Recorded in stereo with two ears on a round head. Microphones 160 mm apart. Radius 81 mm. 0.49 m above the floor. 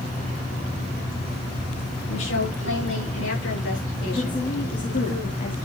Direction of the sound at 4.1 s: 45° left (ahead or behind).